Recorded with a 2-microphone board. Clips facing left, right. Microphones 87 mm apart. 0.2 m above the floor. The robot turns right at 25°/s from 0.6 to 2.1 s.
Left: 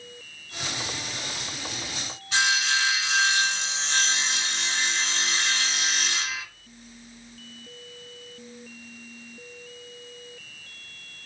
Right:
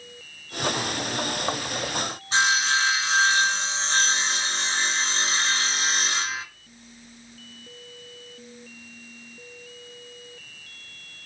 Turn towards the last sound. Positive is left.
turn(degrees=-35)  # may be behind; listen again after turning